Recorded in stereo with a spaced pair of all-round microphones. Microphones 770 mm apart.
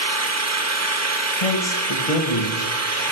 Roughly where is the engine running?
Right.